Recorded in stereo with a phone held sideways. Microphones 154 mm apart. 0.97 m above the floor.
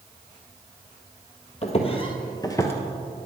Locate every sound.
1.6 s footsteps: 45° left (ahead or behind), 1.4 m; by 2.7 s 15° left (ahead or behind), 1.0 m